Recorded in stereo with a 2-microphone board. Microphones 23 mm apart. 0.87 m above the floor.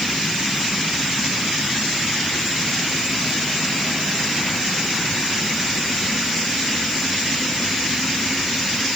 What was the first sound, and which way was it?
Only background noise.